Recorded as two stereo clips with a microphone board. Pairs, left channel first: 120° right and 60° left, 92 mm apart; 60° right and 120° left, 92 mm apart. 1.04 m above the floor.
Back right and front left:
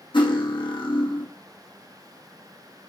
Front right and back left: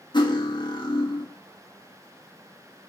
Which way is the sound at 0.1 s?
95° right.